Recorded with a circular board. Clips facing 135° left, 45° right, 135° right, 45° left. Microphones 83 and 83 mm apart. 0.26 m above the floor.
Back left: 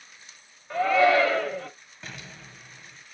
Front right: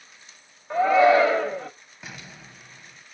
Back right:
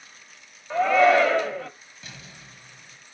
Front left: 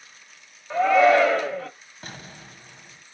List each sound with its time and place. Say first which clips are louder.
0.7 s a shout: front right 3 dB, front left 1 dB; 40° right, 1.1 m
2.0 s an explosion: even, front left 5 dB; 35° left, 0.8 m